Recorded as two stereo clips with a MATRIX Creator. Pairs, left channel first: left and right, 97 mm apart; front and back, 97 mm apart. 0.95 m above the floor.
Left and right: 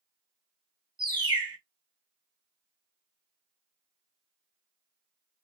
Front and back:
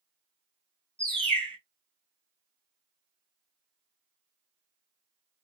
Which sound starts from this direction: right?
A bird, at 1.0 s.